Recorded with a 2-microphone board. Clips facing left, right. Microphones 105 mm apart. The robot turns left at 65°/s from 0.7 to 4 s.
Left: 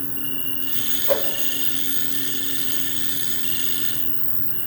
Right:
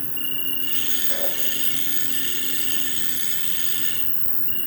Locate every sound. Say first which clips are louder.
0.0 s an insect: left 4 dB; 20° left, 3.5 m; by 4.7 s 165° left, 3.5 m
1.1 s a whoosh: left 10 dB; 70° left (ahead or behind), 3.5 m